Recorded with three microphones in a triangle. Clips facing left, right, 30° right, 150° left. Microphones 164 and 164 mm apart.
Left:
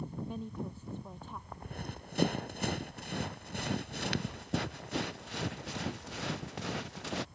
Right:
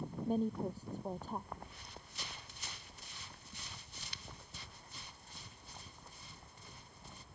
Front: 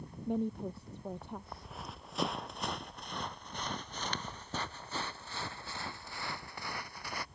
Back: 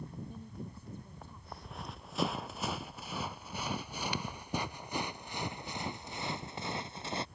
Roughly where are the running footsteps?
Ahead left.